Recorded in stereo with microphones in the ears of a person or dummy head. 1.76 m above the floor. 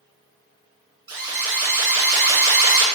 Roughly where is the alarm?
Right.